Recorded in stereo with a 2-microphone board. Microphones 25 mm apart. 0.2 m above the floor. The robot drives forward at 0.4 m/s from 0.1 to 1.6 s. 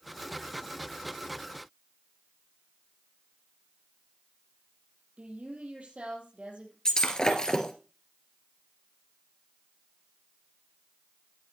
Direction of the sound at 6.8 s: 35° left (ahead or behind).